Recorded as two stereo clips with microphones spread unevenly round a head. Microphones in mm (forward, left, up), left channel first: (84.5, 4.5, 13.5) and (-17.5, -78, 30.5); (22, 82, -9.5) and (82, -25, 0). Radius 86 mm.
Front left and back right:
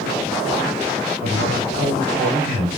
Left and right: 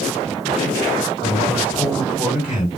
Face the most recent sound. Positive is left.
turn(degrees=-150)